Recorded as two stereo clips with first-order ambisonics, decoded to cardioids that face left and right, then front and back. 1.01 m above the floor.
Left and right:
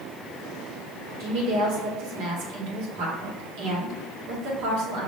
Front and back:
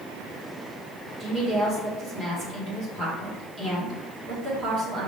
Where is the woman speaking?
110° right, 1.6 m.